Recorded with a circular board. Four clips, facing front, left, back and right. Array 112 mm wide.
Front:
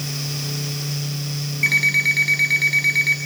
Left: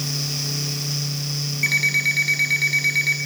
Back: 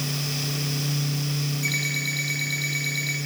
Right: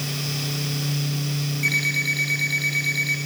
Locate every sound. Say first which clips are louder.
1.6 s an alarm clock: left 2 dB, front 7 dB; 30° left, 5.5 m